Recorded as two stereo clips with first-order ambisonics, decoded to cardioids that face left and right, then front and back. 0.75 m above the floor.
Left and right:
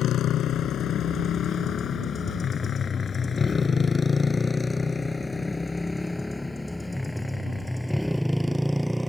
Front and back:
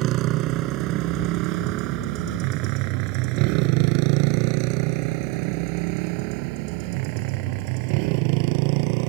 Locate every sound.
0.0 s a motorcycle: 140° left; by 9.1 s straight behind